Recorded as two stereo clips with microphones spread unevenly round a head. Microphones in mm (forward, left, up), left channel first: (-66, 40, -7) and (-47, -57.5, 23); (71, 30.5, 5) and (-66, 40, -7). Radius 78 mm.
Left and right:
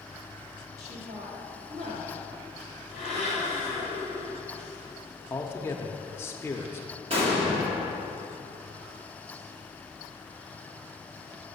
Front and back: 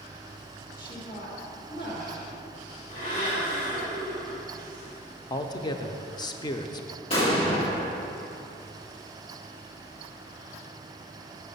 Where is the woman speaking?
50° right, 2.5 m.